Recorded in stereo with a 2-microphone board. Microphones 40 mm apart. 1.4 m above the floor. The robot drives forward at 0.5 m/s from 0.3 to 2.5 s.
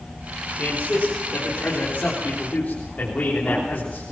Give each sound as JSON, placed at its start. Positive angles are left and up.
{"t": 0.6, "sound": "a man speaking", "side_deg": 35, "distance_m": 4.0}